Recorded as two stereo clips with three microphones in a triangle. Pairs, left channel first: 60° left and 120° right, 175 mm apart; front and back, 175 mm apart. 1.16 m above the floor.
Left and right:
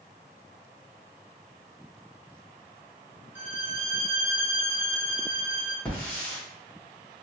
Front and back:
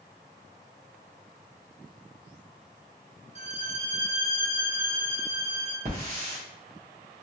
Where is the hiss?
140° left, 1.2 m.